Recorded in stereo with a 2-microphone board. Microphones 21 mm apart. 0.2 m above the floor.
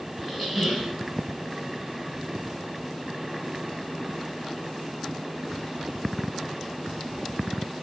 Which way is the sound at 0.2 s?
10° right (ahead or behind).